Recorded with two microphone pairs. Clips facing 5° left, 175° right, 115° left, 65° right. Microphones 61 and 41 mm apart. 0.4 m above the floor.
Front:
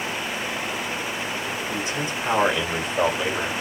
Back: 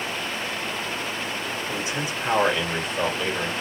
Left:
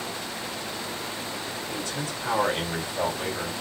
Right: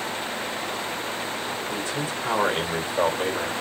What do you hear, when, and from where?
1.7 s a man speaking: 120° right, 1.9 m; by 3.5 s 65° right, 1.7 m